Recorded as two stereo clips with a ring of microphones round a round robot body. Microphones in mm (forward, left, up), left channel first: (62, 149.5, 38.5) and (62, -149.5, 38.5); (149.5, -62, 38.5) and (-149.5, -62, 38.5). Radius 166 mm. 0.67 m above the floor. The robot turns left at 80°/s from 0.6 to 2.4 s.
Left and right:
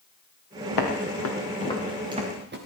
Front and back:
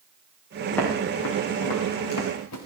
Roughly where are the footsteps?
Left.